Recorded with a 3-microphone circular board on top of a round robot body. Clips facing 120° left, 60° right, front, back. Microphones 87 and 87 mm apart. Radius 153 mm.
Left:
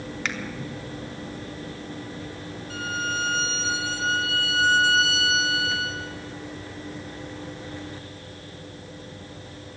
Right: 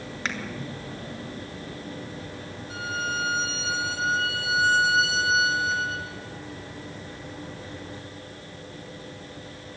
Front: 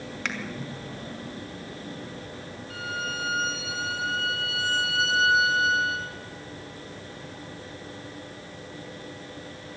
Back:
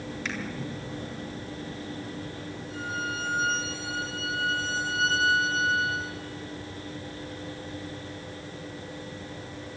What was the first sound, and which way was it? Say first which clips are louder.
A finger snap: even, front 3 dB; 10° right.